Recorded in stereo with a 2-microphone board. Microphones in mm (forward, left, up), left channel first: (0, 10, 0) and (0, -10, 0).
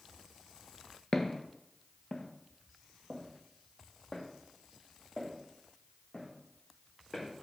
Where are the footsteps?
30° left (ahead or behind), 1.0 m; by 7.3 s 35° left (ahead or behind), 4.5 m.